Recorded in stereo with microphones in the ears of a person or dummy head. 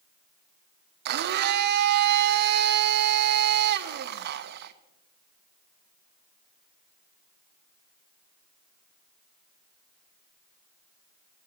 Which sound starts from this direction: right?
A blender, at 1.1 s.